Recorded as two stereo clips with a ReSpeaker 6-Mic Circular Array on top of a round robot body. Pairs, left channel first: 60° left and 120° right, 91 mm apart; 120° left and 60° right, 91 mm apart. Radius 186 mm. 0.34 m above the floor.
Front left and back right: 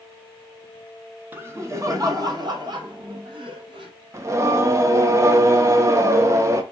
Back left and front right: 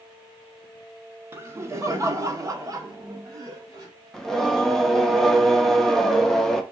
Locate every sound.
1.3 s laughter: 80° right, 1.0 m; by 3.9 s 105° right, 1.9 m
4.1 s singing: 155° right, 0.8 m